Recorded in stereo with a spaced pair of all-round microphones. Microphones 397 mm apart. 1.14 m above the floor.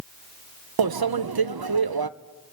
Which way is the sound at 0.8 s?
65° right (ahead or behind).